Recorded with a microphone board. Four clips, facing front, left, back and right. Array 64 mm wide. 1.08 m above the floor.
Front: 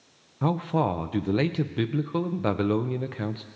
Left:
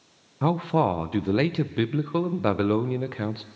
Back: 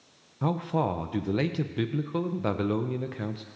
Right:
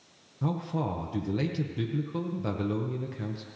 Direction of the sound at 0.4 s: 75° left.